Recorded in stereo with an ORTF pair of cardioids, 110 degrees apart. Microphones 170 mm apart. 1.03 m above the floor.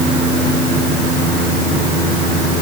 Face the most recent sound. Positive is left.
No sound to turn to.